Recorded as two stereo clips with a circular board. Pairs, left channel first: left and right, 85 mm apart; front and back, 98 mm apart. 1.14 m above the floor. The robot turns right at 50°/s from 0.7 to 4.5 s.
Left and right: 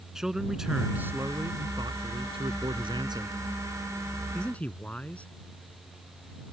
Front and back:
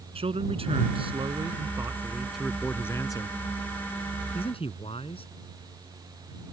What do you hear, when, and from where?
0.1 s a man speaking: 175° right; by 5.3 s 15° left